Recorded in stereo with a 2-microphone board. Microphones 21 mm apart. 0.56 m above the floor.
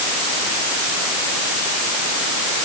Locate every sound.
Only background noise.